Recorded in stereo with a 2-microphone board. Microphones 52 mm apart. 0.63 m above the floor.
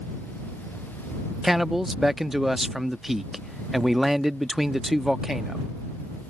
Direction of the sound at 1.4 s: 5° right (ahead or behind).